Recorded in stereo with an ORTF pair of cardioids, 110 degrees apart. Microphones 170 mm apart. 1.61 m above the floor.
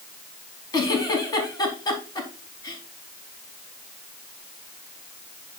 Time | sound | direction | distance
0.7 | a giggle | 20° left | 3.5 m